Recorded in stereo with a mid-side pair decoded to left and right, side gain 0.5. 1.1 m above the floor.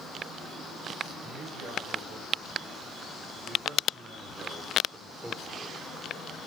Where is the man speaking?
65° right, 6.5 m; by 5.8 s 15° right, 3.5 m.